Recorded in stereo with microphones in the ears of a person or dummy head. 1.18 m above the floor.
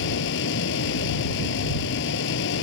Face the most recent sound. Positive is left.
turn(degrees=65)  # may be behind; listen again after turning